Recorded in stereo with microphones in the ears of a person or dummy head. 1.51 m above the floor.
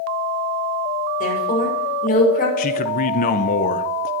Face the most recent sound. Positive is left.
turn(degrees=35)  # may be behind; listen again after turning